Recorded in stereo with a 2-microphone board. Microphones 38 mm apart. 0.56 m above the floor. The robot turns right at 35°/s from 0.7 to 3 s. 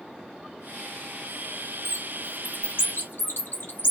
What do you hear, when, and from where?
1.9 s a bird: 65° left (ahead or behind), 1.1 m; by 3.9 s 75° left (ahead or behind), 1.1 m